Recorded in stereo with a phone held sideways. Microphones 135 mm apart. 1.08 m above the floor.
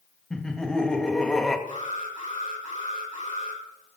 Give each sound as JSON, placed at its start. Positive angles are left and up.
{"t": 0.3, "sound": "laughter", "side_deg": 5, "distance_m": 1.7}
{"t": 1.7, "sound": "an alarm", "side_deg": 80, "distance_m": 9.0}